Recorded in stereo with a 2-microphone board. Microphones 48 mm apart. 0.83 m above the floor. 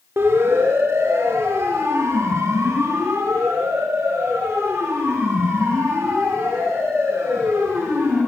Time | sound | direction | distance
0.2 | a siren | 55° right (ahead or behind) | 4 m